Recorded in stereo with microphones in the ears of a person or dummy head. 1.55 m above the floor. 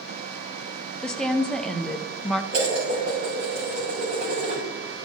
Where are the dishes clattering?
65° right (ahead or behind), 4.5 m.